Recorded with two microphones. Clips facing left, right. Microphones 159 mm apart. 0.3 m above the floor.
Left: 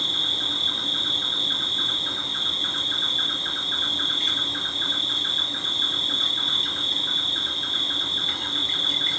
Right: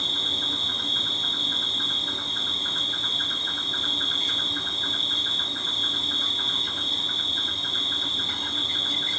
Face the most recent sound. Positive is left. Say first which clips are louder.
# even
turn(degrees=70)  # may be behind; listen again after turning